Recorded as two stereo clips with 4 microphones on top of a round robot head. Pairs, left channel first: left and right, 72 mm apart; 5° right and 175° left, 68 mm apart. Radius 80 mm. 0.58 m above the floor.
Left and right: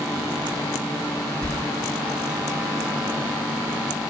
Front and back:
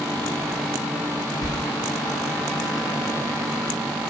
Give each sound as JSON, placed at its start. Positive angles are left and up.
{"t": 1.4, "sound": "a sliding door", "azimuth_deg": 15, "distance_m": 3.5}